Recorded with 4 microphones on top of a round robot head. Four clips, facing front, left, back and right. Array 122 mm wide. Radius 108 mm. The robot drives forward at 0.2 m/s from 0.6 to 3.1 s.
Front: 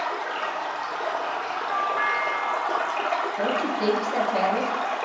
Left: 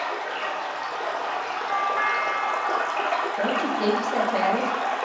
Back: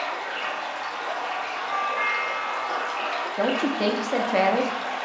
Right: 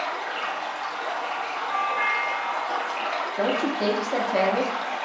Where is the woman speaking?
170° right, 0.8 m.